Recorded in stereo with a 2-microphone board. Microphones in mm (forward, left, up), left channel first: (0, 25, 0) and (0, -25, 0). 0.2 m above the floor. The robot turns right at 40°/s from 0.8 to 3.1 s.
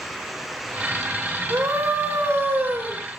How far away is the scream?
About 4.5 m.